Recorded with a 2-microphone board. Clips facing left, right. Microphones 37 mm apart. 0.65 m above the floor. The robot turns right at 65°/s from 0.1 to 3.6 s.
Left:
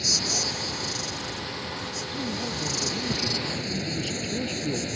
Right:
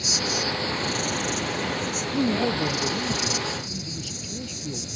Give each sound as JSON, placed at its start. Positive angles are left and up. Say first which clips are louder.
{"t": 0.0, "sound": "an insect", "louder": "right 2 dB", "azimuth_deg": 175}
{"t": 2.1, "sound": "a man speaking", "louder": "right 9 dB", "azimuth_deg": -70}